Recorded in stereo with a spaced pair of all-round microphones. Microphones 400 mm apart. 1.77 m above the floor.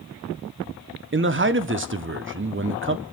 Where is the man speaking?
30° right (ahead or behind), 0.7 m.